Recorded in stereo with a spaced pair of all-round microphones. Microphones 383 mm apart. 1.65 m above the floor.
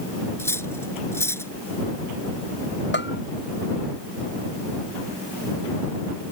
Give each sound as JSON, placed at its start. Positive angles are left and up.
{"t": 0.4, "sound": "cutlery clinking", "side_deg": 5}
{"t": 2.9, "sound": "a bell", "side_deg": 30}